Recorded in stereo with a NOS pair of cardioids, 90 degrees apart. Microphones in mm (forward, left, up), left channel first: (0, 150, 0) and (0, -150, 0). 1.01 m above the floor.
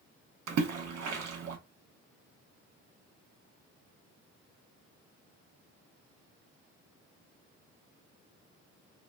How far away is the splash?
About 1.0 m.